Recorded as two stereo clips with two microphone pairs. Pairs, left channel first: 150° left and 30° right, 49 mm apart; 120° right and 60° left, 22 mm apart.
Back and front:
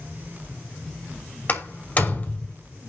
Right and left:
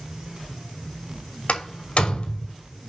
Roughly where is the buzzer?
No buzzer in this recording.